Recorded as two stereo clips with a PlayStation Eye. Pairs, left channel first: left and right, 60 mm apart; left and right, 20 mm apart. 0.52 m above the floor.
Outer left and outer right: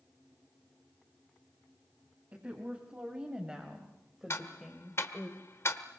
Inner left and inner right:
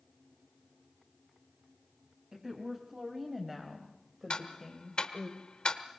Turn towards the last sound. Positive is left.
turn(degrees=45)  # may be behind; listen again after turning